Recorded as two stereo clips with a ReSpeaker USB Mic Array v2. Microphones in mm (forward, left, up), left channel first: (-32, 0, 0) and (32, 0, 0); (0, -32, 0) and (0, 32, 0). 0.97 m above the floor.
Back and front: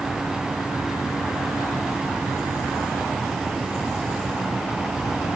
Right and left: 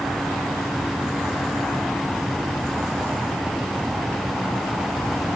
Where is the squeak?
No squeak in this recording.